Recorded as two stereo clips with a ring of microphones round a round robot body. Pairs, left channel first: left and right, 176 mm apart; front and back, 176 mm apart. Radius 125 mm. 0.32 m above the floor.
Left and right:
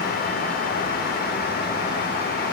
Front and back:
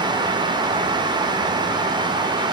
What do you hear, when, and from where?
Only background noise.